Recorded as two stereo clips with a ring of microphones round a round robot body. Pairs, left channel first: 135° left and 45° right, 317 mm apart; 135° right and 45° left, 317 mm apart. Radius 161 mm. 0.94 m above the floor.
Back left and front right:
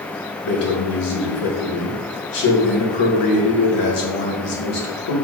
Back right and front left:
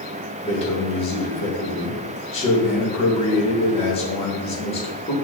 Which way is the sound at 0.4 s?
155° left.